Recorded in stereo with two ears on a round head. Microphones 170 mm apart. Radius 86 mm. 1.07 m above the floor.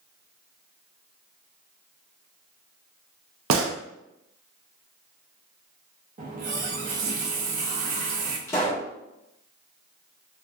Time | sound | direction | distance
3.5 | a gunshot | 80° right | 0.7 m
6.2 | a running tap | 40° right (ahead or behind) | 0.7 m
8.5 | a pop | 15° left (ahead or behind) | 1.2 m